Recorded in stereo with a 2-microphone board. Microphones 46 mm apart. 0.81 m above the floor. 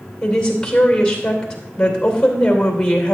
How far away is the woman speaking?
About 2.5 m.